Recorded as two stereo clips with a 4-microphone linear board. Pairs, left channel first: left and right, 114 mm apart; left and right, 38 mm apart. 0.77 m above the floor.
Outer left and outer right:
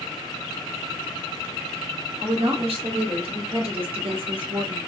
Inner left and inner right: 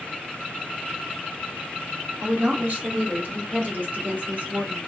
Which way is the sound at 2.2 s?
65° right (ahead or behind).